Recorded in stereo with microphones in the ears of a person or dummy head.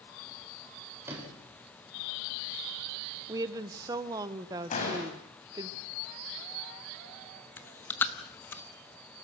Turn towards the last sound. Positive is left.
turn(degrees=10)  # may be behind; listen again after turning